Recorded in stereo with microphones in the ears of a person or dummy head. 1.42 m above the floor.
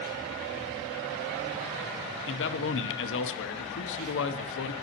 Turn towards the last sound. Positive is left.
turn(degrees=70)  # may be behind; listen again after turning